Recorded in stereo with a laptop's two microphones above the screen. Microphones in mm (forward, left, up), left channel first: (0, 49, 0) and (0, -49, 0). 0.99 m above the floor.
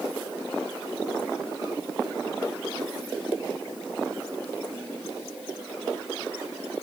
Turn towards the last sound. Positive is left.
No sound to turn to.